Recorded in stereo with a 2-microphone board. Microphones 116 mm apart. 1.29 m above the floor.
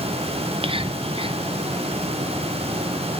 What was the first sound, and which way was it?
Whispering, 50° right (ahead or behind).